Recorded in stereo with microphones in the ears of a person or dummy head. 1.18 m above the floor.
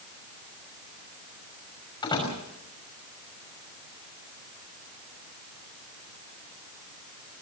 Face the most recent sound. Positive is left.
turn(degrees=25)  # may be behind; listen again after turning